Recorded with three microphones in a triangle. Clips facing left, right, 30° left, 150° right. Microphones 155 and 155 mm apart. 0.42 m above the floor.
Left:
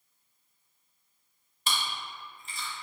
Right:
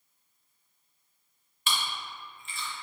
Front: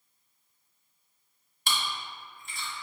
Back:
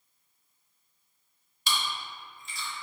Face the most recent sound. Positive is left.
turn(degrees=50)